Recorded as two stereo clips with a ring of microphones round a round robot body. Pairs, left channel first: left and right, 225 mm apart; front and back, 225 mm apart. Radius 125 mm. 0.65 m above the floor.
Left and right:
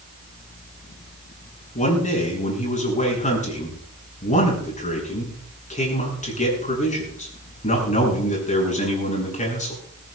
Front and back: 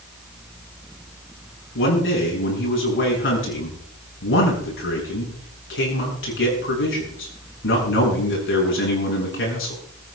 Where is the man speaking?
35° left, 7.5 m.